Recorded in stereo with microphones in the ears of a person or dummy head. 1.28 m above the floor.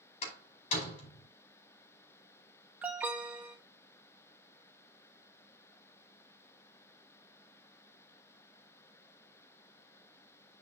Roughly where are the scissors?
No scissors in this recording.